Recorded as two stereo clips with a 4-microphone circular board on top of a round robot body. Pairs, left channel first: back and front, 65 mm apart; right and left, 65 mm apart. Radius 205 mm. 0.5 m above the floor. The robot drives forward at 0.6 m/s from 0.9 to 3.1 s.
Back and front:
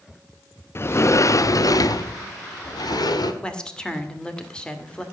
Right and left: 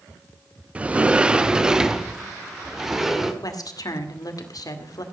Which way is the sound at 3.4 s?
105° right.